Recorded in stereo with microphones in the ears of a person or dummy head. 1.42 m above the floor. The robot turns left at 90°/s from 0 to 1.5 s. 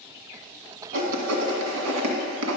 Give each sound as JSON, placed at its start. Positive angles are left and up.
{"t": 0.9, "sound": "writing", "side_deg": -55, "distance_m": 1.5}